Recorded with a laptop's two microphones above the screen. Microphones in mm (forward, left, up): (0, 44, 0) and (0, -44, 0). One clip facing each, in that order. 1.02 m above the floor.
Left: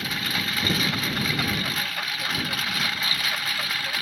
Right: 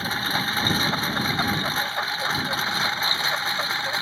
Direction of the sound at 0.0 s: 30° right (ahead or behind).